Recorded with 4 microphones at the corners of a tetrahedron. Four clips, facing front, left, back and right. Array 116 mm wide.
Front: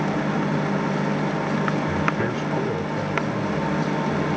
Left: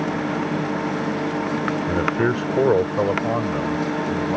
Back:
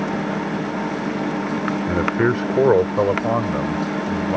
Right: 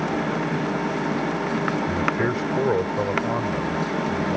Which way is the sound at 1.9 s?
150° left.